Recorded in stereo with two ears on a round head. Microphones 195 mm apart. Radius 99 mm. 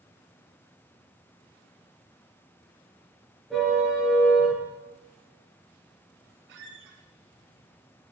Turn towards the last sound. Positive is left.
turn(degrees=-65)  # may be behind; listen again after turning